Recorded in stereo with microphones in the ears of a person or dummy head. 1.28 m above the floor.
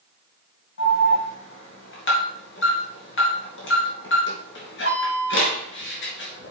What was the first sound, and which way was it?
An alarm, 60° left (ahead or behind).